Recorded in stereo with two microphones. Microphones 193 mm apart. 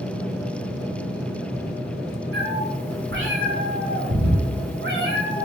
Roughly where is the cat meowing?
Right.